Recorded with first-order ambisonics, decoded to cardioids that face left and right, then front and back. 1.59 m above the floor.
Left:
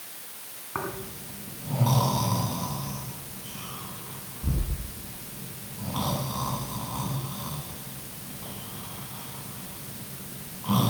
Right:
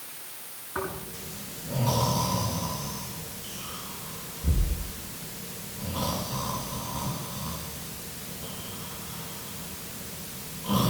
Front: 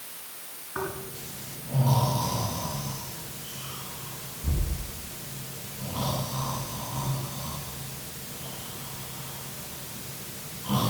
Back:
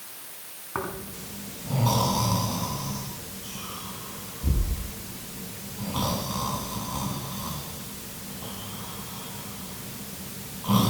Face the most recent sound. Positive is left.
turn(degrees=145)